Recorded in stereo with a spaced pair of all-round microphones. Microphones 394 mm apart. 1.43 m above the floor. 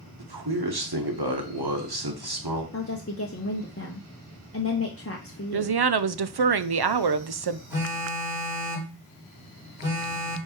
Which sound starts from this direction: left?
A woman speaking, at 2.7 s.